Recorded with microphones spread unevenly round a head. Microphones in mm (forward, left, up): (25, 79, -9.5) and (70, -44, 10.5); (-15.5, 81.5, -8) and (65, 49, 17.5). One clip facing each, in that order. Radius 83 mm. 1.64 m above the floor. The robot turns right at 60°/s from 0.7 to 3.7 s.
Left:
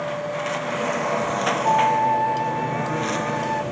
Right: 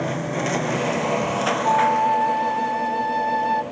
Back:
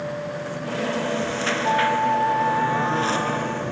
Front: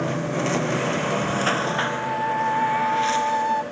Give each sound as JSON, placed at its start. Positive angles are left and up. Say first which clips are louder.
{"t": 0.0, "sound": "a lawn mower", "louder": "right 2 dB, front 4 dB", "azimuth_deg": -25}
{"t": 1.6, "sound": "a flute", "louder": "even, back 5 dB", "azimuth_deg": -160}